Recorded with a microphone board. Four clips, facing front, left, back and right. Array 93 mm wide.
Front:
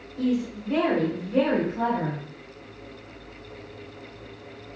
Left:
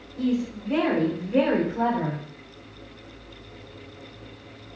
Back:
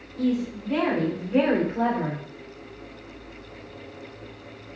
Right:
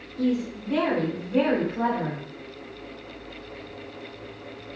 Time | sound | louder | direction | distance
0.2 | a woman speaking | even, even | 45° left | 0.9 m